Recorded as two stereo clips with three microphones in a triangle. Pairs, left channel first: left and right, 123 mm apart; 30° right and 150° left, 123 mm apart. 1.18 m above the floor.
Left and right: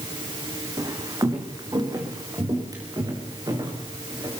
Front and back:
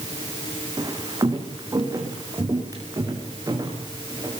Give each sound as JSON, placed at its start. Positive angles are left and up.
{"t": 0.8, "sound": "footsteps", "azimuth_deg": -150, "distance_m": 5.0}